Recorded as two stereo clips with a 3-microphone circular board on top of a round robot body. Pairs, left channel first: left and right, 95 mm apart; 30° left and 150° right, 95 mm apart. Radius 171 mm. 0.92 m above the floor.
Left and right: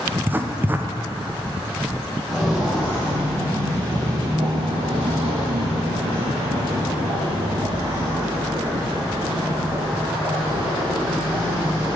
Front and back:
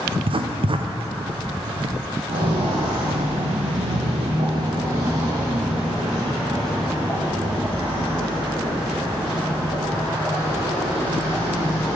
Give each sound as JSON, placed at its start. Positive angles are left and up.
{"t": 0.1, "sound": "writing", "azimuth_deg": -160, "distance_m": 0.7}
{"t": 2.3, "sound": "footsteps", "azimuth_deg": -175, "distance_m": 1.9}